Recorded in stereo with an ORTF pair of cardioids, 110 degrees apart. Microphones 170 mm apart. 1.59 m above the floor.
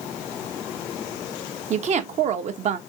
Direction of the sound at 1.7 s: 45° right.